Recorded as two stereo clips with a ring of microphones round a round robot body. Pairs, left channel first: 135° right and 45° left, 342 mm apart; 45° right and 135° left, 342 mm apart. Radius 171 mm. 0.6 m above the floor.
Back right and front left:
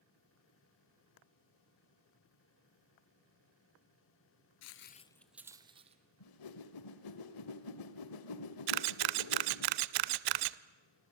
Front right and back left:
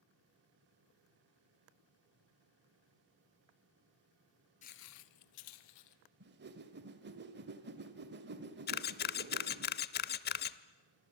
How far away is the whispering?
I don't hear whispering.